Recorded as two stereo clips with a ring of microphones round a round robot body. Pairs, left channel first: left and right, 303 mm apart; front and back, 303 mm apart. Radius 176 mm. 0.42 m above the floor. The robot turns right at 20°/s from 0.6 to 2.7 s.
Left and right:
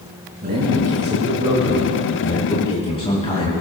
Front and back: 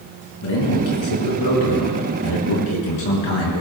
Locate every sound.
0.4 s a man speaking: 25° right, 5 m; by 3.6 s 15° left, 5 m